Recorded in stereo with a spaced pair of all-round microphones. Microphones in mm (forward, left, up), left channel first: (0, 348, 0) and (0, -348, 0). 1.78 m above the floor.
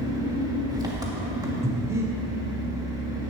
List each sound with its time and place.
0.0 s an engine running: 5° right (ahead or behind), 1.5 m
1.6 s breathing: 5° right (ahead or behind), 1.6 m